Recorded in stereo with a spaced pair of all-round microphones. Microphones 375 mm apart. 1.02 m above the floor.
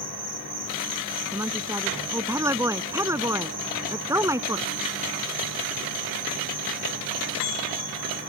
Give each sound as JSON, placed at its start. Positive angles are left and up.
{"t": 0.0, "sound": "an insect", "side_deg": -30}
{"t": 1.3, "sound": "a woman speaking", "side_deg": -10}